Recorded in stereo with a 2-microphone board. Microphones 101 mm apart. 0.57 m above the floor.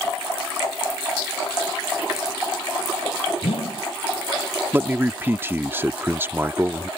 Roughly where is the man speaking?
Right.